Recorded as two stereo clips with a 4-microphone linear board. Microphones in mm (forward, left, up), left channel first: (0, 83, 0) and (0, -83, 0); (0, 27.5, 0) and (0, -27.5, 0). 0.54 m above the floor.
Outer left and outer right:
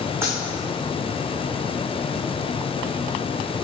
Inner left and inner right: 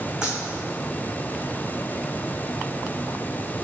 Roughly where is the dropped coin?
Centre.